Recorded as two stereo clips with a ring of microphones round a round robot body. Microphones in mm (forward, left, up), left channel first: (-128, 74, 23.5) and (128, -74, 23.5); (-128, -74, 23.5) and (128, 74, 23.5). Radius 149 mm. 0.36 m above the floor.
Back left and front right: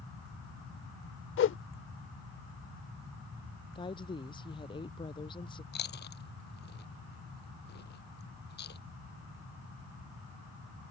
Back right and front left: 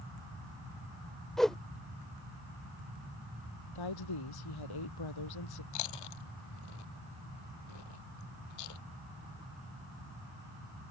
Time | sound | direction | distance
1.4 | a whoosh | 120° left | ?
3.8 | a woman speaking | 135° right | ?
5.7 | chewing | 150° right | ?